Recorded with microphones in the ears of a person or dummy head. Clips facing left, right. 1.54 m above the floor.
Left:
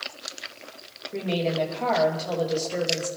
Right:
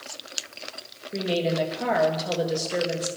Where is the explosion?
No explosion in this recording.